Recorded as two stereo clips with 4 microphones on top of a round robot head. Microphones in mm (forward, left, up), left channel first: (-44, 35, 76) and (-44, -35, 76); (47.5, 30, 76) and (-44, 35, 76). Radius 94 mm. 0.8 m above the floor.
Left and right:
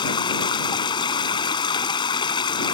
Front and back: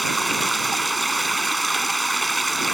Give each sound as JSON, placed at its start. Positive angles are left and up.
{"t": 0.0, "sound": "running water", "azimuth_deg": 85}